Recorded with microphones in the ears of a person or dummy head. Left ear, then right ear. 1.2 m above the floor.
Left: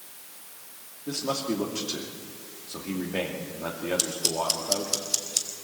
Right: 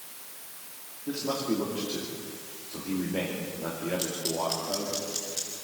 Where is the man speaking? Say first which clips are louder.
Left 1 dB; 80° left, 2.5 m.